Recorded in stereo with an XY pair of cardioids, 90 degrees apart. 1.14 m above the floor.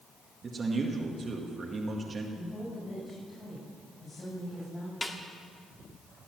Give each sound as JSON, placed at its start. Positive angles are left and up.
{"t": 0.4, "sound": "a man speaking", "azimuth_deg": -45, "distance_m": 1.9}
{"t": 2.4, "sound": "a woman speaking", "azimuth_deg": 45, "distance_m": 7.5}
{"t": 5.0, "sound": "a snare drum", "azimuth_deg": 20, "distance_m": 1.9}